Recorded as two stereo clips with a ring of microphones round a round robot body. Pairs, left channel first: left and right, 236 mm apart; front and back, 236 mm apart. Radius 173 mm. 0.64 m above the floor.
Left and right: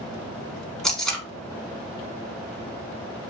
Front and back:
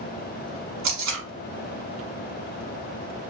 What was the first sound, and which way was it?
Tape being pulled, straight behind.